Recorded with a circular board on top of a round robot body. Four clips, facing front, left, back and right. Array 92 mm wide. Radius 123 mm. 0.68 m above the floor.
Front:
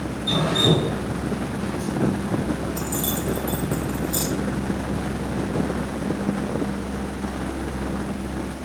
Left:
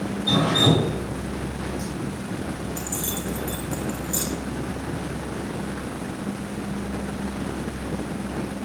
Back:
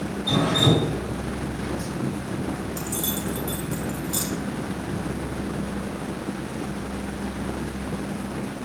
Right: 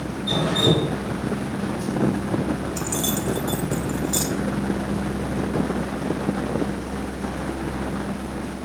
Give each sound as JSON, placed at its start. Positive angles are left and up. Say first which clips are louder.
{"t": 0.3, "sound": "dripping", "louder": "left 1 dB, even", "azimuth_deg": 125, "distance_m": 4.5}
{"t": 2.8, "sound": "keys jangling", "louder": "right 5 dB, front 3 dB", "azimuth_deg": -95, "distance_m": 1.2}